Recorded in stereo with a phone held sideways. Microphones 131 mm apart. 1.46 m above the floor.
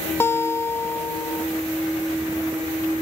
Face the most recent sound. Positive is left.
turn(degrees=20)  # may be behind; listen again after turning